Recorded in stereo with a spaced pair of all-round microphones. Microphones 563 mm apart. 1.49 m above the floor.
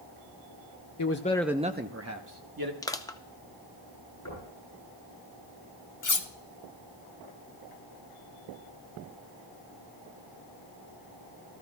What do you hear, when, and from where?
1.0 s a man speaking: 35° left (ahead or behind), 0.6 m; by 2.7 s 40° right (ahead or behind), 1.4 m
2.8 s crushing: 5° left (ahead or behind), 0.6 m
4.2 s knocking: 30° left (ahead or behind), 9.5 m
6.0 s cutlery clinking: 35° left (ahead or behind), 0.8 m